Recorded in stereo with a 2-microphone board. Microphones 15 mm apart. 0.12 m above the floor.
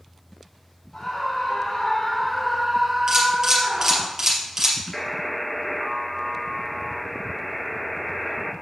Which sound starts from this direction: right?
A camera shutter, at 3.1 s.